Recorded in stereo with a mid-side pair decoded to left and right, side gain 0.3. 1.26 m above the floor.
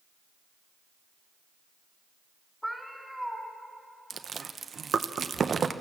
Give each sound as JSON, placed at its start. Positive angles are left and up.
{"t": 2.6, "sound": "a cat meowing", "azimuth_deg": 0, "distance_m": 3.5}
{"t": 4.1, "sound": "chewing", "azimuth_deg": -60, "distance_m": 0.8}